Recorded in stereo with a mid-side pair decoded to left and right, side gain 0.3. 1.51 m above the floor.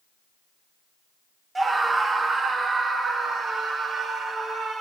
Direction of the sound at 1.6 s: 40° right.